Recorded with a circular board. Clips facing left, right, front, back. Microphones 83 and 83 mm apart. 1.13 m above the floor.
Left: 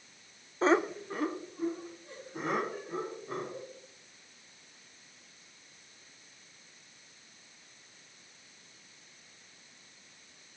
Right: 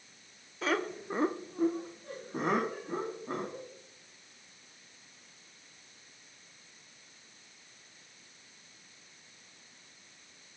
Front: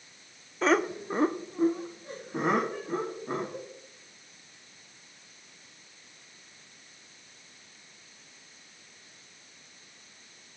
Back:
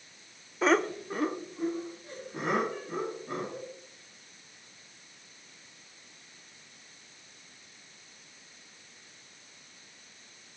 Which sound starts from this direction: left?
Laughter, at 0.6 s.